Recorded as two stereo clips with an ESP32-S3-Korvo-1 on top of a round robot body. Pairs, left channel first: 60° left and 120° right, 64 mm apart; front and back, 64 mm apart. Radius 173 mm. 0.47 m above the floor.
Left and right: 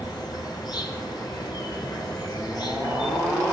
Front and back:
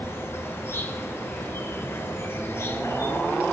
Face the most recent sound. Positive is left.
turn(degrees=55)